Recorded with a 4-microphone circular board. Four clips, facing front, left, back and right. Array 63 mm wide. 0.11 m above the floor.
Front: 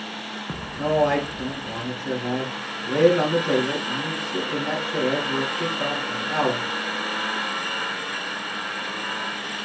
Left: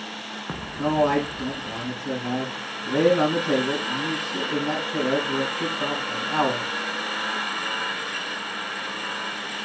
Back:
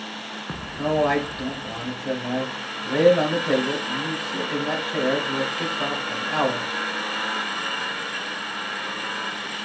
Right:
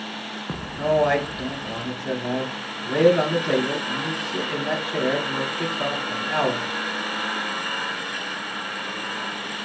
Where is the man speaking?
120° right, 2 m.